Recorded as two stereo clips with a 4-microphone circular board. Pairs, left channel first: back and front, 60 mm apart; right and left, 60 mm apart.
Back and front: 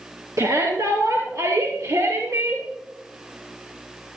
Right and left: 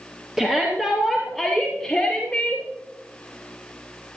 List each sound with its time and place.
0.4 s a shout: 10° left, 2.5 m; by 2.7 s 20° right, 2.5 m